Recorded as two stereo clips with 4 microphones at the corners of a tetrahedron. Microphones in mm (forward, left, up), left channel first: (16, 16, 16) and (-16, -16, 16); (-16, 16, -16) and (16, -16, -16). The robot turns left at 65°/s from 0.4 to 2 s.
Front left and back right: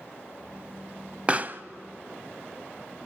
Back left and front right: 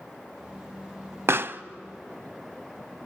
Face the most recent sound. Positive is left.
turn(degrees=-120)